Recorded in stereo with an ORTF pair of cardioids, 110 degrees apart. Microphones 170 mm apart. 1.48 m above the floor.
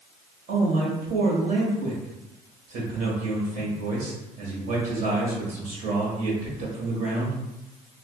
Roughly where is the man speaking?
Ahead right.